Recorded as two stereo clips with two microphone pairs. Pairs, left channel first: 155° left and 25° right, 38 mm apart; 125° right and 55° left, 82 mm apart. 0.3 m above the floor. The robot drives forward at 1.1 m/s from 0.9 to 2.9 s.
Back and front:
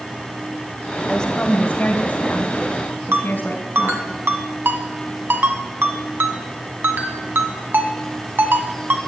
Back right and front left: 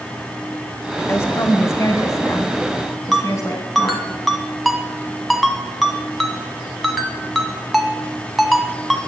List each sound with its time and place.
1.1 s a woman speaking: 150° right, 1.3 m; by 4.0 s 170° right, 3 m
3.1 s a ringtone: 35° right, 1.6 m